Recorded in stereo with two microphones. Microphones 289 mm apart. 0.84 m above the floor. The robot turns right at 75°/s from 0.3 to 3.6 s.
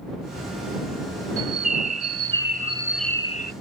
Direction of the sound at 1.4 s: 125° right.